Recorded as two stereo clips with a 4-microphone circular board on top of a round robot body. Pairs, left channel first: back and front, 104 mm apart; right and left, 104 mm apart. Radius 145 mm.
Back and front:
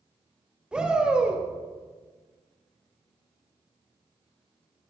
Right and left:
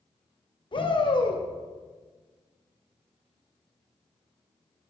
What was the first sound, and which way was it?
A shout, 80° right.